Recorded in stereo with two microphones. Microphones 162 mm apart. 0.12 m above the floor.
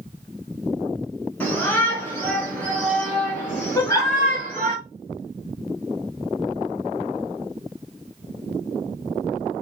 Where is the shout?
10° left (ahead or behind), 1.4 m; by 4.8 s 5° left (ahead or behind), 2 m.